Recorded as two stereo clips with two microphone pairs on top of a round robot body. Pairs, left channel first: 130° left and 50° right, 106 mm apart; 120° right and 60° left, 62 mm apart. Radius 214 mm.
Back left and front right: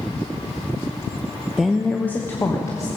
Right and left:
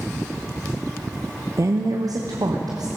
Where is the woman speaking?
30° left, 0.9 m; by 2.9 s 70° left, 1.7 m.